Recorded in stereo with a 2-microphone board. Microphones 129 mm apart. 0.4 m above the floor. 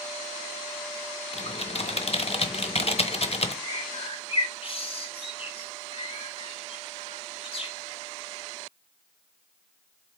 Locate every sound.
1.3 s typing on a keyboard: 50° left (ahead or behind), 0.9 m
3.6 s a bird: 45° left (ahead or behind), 1.4 m